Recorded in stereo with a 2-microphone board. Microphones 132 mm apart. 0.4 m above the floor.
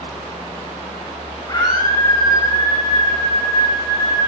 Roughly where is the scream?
Left.